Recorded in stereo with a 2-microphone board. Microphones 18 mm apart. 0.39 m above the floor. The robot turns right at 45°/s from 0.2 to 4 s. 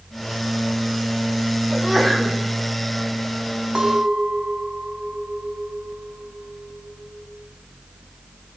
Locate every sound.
1.7 s a sneeze: 5° right, 3.5 m; by 2.4 s 25° left, 3.5 m
3.8 s a clink: 50° right (ahead or behind), 2.0 m; by 7.3 s 60° right (ahead or behind), 2.0 m